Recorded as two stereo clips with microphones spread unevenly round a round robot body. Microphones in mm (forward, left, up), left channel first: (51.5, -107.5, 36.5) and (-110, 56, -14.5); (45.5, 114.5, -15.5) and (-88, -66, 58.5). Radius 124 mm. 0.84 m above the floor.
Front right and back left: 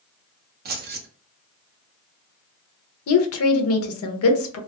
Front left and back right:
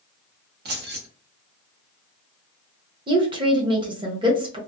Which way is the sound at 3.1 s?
45° right.